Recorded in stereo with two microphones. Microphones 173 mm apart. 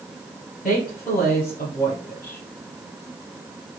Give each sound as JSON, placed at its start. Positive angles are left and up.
{"t": 0.6, "sound": "a woman speaking", "side_deg": 60, "distance_m": 2.5}